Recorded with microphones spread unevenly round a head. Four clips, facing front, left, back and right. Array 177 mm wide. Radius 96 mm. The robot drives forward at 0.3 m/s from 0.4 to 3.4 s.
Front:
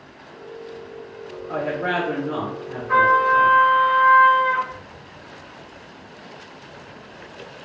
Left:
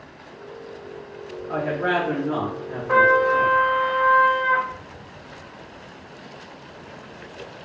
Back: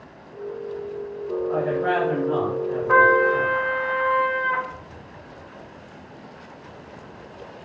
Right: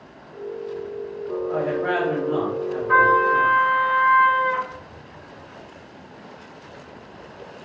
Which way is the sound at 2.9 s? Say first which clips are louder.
Even, front 1 dB; 150° left.